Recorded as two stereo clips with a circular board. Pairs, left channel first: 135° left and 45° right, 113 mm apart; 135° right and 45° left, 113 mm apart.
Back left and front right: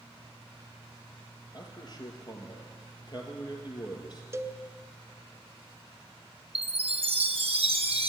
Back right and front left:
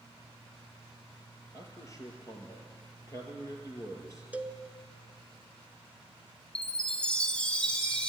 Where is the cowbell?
15° right, 0.6 m.